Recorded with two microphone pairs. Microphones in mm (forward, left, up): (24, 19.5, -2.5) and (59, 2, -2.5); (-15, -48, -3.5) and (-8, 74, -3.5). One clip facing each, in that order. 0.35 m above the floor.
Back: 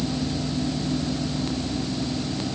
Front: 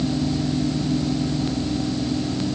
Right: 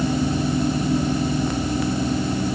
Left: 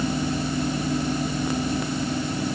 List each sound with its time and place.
Only background noise.